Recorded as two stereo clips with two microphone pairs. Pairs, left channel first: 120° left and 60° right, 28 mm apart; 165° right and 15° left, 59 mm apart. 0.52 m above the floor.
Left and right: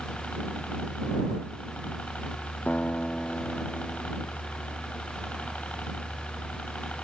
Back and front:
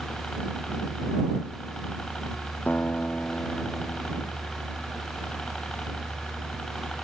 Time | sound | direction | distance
0.0 | a helicopter | 120° left | ?
2.7 | a guitar | 135° left | ?